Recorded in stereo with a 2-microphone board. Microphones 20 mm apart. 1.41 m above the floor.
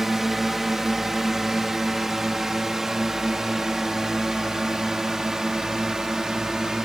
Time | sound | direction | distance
0.0 | a drone | 20° right (ahead or behind) | ?